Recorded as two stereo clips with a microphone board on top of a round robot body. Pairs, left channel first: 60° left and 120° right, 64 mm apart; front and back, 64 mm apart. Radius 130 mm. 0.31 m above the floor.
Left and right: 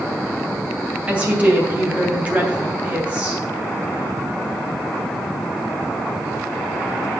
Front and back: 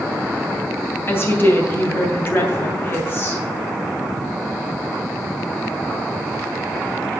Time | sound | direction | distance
1.1 | a woman speaking | 50° right | 3 m